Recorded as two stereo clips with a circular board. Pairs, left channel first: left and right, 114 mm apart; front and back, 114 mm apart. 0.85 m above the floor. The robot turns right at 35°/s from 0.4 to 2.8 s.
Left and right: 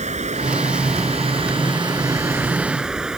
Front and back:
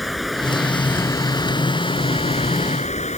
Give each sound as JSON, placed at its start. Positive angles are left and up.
{"t": 0.0, "sound": "running water", "azimuth_deg": -90}